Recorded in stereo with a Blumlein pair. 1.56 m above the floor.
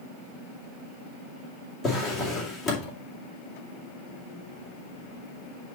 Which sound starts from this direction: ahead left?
A drawer, at 1.8 s.